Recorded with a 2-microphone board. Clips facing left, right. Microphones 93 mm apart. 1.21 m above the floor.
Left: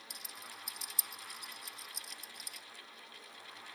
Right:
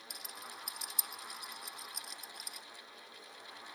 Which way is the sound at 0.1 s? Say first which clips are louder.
Right 3 dB; 55° right (ahead or behind).